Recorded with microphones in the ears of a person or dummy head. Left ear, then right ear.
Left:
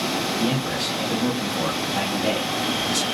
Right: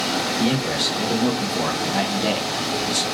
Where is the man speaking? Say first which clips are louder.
Right 3 dB; 65° right (ahead or behind), 1.6 m; by 3.0 s 5° right (ahead or behind), 0.7 m.